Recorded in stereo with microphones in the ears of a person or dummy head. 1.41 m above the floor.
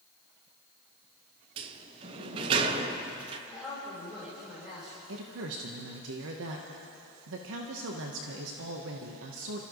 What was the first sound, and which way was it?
A sliding door, 30° right (ahead or behind).